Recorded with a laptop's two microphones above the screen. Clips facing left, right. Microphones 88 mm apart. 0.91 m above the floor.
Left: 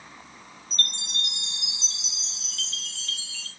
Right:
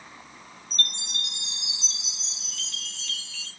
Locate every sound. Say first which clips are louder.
0.7 s a chime: even; 30° left (ahead or behind), 3 m